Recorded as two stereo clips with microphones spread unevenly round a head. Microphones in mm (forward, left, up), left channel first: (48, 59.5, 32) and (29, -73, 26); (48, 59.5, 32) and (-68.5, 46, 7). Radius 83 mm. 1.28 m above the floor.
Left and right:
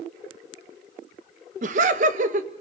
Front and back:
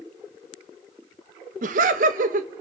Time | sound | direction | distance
1.6 | laughter | 145° right | 1.1 m